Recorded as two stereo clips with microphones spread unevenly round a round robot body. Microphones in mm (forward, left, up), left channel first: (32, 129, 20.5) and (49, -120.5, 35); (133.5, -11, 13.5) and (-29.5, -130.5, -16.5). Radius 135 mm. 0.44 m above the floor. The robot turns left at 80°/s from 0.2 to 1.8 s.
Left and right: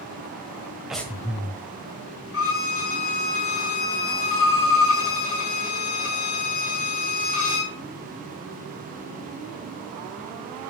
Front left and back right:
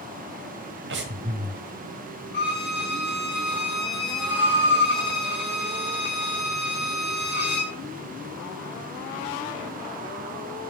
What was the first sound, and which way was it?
Breathing, 175° right.